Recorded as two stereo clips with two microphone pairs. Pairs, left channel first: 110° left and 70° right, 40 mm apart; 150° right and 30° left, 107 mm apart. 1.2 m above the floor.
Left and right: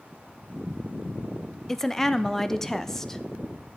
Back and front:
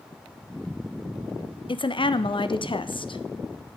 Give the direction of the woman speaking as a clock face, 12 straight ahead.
6 o'clock.